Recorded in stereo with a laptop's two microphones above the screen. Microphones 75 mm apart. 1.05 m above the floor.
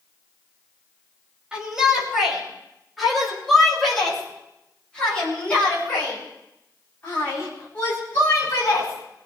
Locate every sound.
1.5 s a shout: 10° right (ahead or behind), 5.5 m; by 9.3 s 35° left (ahead or behind), 8.5 m